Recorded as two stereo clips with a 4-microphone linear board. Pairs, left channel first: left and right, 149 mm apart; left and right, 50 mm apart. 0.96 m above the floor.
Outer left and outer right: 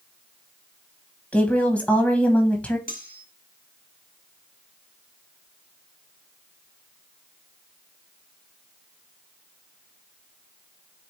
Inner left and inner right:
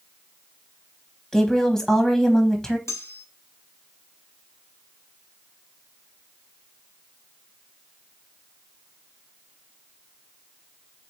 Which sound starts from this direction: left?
Cutlery clinking, at 2.9 s.